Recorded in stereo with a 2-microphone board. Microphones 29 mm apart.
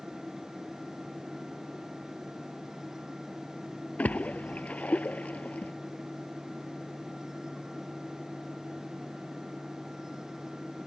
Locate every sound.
4.0 s a splash: 55° left (ahead or behind)